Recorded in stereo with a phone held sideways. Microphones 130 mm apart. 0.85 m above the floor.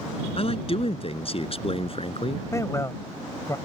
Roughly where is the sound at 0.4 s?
Left.